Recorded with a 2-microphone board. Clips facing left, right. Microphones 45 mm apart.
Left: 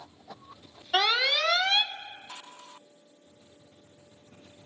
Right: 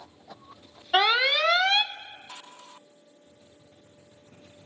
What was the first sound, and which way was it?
An alarm, 20° right (ahead or behind).